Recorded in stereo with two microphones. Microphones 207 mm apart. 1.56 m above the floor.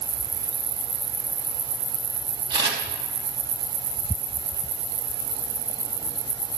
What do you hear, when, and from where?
2.5 s a camera shutter: 25° right (ahead or behind), 3 m